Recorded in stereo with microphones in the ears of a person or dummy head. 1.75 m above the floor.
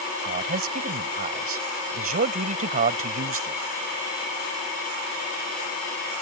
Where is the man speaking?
40° right (ahead or behind).